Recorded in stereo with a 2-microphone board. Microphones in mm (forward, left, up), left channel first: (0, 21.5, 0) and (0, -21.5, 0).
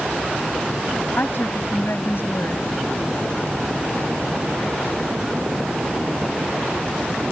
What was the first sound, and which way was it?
A woman speaking, 65° left (ahead or behind).